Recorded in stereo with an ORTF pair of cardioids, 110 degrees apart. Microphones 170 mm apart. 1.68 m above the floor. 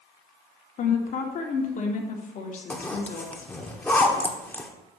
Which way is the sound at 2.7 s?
10° left.